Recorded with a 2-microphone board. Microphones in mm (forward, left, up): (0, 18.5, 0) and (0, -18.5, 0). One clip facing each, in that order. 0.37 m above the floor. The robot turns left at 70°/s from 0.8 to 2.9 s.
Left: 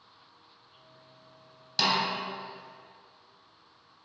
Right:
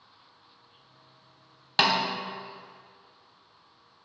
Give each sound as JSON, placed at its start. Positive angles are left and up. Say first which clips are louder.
{"t": 1.8, "sound": "a snare drum", "louder": "right 3 dB", "side_deg": -45, "distance_m": 0.9}